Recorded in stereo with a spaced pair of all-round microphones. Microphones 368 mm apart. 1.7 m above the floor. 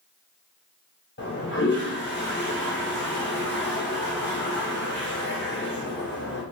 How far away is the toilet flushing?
About 0.9 m.